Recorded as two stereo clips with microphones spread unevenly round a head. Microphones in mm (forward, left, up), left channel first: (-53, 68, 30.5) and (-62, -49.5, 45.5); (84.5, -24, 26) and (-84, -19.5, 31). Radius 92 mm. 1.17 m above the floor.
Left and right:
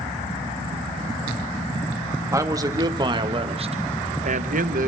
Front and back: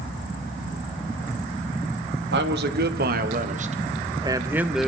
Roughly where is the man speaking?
Behind.